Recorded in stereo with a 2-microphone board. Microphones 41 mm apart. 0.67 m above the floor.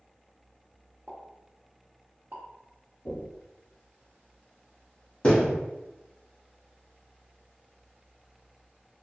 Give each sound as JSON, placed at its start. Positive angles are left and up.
{"t": 1.1, "sound": "a pop", "side_deg": -55, "distance_m": 0.7}
{"t": 3.0, "sound": "knocking", "side_deg": 65, "distance_m": 2.0}
{"t": 5.2, "sound": "a thud", "side_deg": 25, "distance_m": 1.5}